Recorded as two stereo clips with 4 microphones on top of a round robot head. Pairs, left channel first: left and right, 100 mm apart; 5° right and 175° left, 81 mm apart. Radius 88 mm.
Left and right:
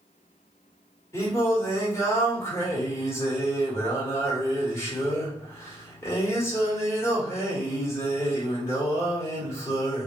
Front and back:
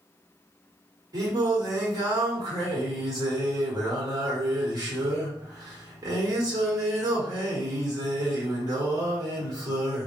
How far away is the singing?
About 1.7 m.